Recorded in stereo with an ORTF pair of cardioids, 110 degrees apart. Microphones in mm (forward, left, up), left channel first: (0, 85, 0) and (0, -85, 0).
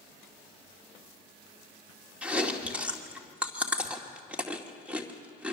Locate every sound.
2.2 s chewing: 5° right, 2.5 m